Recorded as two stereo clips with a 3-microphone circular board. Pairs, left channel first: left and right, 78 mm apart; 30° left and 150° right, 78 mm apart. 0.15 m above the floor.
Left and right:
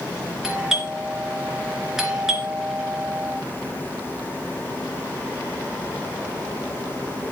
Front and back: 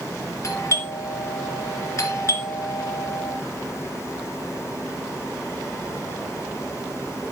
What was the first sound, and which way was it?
A doorbell, 5° right.